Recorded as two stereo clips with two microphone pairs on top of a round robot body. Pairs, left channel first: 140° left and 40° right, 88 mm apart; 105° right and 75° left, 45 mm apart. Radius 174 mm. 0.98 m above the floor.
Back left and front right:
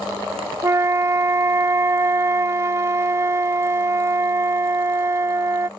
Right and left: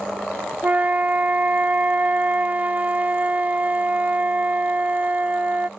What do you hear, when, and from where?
0.6 s a flute: 20° left